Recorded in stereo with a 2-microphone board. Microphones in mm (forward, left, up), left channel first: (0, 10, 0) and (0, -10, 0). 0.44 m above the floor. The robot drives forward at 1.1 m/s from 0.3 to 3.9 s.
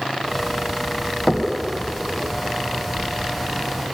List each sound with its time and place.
1.3 s knocking: 25° left (ahead or behind), 2.5 m; by 1.5 s 30° left (ahead or behind), 2.5 m